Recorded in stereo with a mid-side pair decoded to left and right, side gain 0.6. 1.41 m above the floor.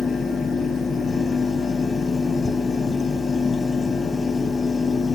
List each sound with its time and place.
0.0 s a fan: 20° left, 0.8 m